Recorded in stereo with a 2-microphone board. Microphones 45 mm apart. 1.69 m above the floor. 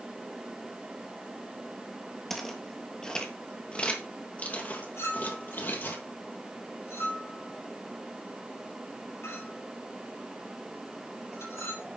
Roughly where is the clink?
Left.